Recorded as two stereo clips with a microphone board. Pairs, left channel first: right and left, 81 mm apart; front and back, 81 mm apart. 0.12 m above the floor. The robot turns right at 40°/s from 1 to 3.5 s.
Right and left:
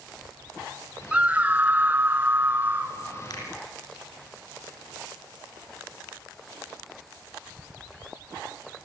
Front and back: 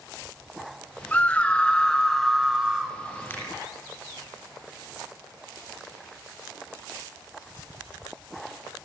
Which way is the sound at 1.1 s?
40° left.